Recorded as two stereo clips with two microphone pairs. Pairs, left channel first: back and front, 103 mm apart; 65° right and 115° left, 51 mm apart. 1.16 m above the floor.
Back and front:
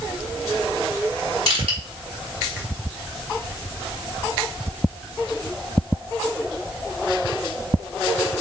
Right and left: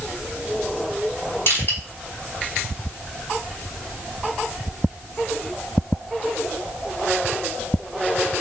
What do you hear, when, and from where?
1.5 s crushing: 20° right, 3 m